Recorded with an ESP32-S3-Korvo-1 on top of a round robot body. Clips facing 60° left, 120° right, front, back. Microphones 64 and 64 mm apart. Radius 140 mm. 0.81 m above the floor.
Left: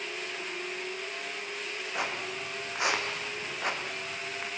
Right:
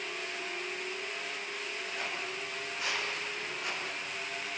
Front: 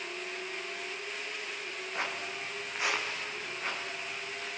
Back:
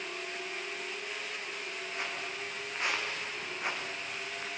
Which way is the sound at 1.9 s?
65° left.